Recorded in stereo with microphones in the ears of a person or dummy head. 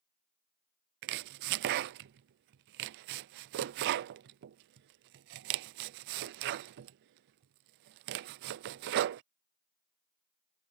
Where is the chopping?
50° right (ahead or behind).